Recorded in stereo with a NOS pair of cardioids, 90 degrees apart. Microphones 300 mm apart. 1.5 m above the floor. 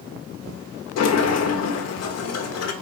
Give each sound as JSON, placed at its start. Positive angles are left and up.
{"t": 1.0, "sound": "a sliding door", "azimuth_deg": 55, "distance_m": 1.1}